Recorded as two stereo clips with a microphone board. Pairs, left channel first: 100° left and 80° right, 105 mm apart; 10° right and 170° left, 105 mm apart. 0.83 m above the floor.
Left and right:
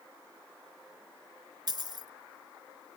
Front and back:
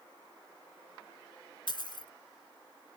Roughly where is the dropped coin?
Ahead right.